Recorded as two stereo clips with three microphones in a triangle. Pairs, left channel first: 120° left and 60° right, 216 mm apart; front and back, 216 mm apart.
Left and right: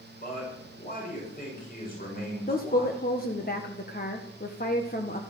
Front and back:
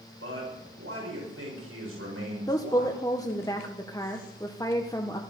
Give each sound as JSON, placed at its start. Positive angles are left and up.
{"t": 0.2, "sound": "a man speaking", "azimuth_deg": 170, "distance_m": 7.0}
{"t": 2.5, "sound": "a woman speaking", "azimuth_deg": 75, "distance_m": 1.4}